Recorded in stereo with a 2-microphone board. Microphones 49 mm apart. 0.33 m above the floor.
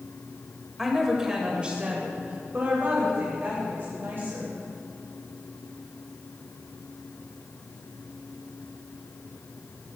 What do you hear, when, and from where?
0.8 s a woman speaking: 5° right (ahead or behind), 1.3 m; by 4.6 s 55° right (ahead or behind), 2.5 m